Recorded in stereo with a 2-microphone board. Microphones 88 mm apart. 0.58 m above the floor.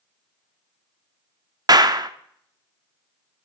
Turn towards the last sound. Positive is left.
turn(degrees=-50)  # may be behind; listen again after turning